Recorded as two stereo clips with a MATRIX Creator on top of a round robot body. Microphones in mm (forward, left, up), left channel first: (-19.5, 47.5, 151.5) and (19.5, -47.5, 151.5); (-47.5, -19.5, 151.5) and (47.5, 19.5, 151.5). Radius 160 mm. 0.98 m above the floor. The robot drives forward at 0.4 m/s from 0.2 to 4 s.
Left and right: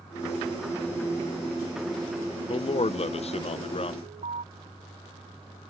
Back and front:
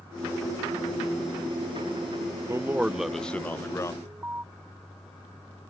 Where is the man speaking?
85° left; by 3.9 s 140° left.